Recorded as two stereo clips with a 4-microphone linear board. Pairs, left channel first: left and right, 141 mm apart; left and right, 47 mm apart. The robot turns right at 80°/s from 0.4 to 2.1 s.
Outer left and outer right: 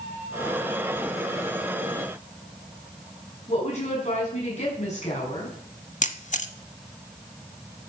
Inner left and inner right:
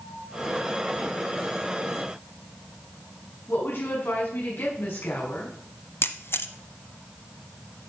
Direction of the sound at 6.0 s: 60° left (ahead or behind).